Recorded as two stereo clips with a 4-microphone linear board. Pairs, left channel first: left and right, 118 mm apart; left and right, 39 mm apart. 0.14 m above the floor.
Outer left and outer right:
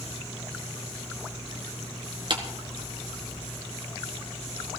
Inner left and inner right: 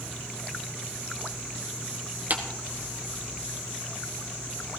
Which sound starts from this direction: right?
A clap, at 2.3 s.